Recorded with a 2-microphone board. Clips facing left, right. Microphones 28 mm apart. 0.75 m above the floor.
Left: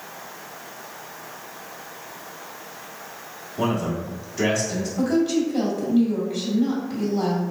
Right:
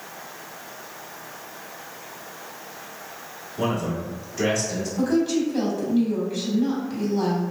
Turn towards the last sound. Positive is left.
turn(degrees=25)  # may be behind; listen again after turning